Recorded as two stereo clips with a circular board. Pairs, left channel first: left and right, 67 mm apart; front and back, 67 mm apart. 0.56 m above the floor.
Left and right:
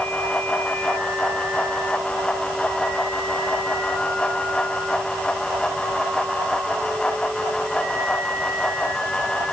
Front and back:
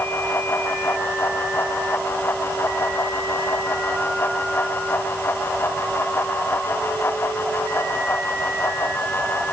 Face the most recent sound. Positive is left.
No sound to turn to.